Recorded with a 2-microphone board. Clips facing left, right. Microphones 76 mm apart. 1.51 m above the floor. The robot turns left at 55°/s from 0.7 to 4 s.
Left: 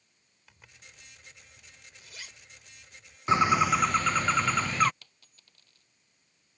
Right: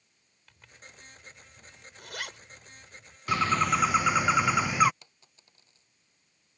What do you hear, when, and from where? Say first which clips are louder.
0.5 s a zipper: right 3 dB; 5° left (ahead or behind); by 3.2 s 50° right (ahead or behind)
3.3 s a bird: left 3 dB; 25° left; by 4.9 s 10° right
5.0 s a dropped coin: right 2 dB; 20° right (ahead or behind)